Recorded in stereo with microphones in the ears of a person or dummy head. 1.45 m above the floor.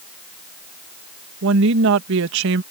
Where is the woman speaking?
65° right (ahead or behind).